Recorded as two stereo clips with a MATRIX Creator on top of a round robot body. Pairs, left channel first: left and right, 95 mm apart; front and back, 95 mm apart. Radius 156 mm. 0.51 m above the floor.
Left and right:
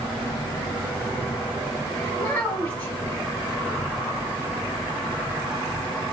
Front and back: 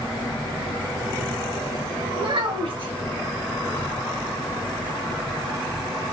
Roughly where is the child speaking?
Behind.